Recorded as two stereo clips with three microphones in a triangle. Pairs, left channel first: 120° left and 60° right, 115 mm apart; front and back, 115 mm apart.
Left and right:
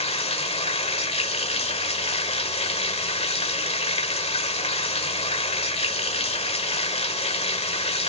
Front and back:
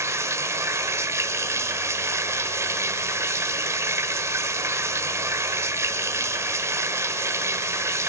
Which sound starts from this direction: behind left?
Running water, at 0.0 s.